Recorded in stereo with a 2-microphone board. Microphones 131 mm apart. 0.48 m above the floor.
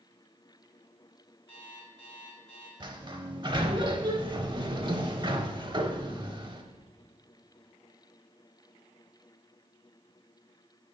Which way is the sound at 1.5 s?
45° left (ahead or behind).